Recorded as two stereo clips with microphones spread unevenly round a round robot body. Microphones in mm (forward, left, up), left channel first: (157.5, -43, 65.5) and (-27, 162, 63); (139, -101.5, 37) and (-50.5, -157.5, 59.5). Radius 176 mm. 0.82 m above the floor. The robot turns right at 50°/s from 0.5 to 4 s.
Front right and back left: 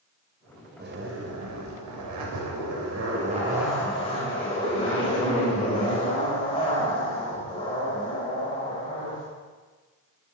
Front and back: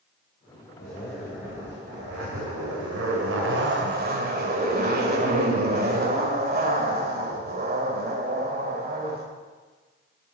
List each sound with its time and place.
0.8 s a zipper: 75° left, 3 m; by 9.2 s 125° right, 3 m